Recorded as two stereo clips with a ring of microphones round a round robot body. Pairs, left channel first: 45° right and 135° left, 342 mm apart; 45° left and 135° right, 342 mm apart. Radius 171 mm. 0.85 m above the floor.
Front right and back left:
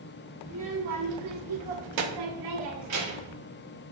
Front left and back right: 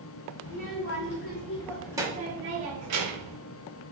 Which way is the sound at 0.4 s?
90° left.